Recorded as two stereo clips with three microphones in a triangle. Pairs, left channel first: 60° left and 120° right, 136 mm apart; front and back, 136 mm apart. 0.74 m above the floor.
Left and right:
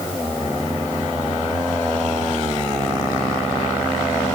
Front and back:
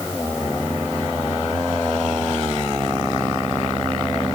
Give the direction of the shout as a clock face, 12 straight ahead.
I don't hear a shout.